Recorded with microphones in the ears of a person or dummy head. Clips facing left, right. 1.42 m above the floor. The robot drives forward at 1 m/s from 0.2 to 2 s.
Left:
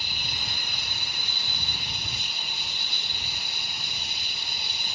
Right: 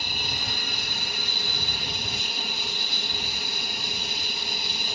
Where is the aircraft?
45° right (ahead or behind); by 5.0 s 50° right (ahead or behind).